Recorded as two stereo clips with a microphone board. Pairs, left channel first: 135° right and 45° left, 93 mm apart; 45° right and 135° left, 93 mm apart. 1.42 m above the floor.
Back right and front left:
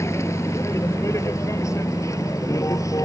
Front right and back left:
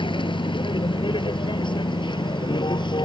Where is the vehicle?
75° right; by 3.1 s 80° right.